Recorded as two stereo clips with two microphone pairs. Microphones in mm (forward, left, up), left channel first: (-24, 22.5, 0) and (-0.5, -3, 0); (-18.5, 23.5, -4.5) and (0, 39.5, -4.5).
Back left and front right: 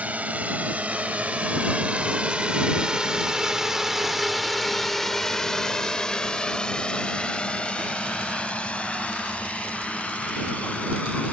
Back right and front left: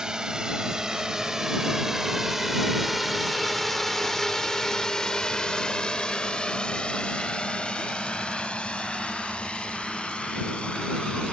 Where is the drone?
15° right; by 11.3 s straight behind.